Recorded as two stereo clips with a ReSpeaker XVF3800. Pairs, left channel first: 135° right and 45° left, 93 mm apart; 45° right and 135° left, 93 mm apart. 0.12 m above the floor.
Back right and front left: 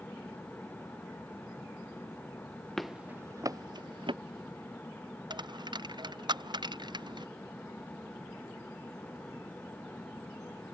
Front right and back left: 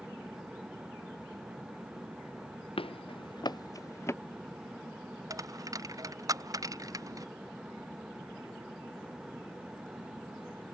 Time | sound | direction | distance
2.8 | running footsteps | 50° right | ?
5.3 | a dropped coin | 85° left | ?